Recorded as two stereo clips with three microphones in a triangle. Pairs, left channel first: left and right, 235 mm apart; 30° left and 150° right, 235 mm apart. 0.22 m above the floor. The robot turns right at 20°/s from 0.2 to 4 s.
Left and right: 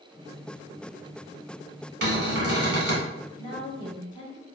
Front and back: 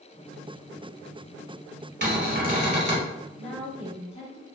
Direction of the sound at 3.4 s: 35° left.